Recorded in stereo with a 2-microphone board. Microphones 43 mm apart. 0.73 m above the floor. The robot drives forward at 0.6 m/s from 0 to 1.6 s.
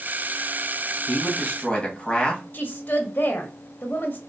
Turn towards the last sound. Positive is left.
turn(degrees=40)  # may be behind; listen again after turning